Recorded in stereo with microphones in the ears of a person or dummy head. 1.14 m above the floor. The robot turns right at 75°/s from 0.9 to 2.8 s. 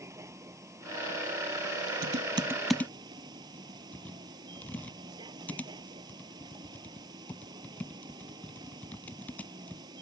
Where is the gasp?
I don't hear a gasp.